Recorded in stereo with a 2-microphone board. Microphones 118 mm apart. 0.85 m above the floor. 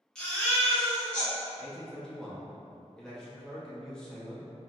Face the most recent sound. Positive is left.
turn(degrees=5)  # may be behind; listen again after turning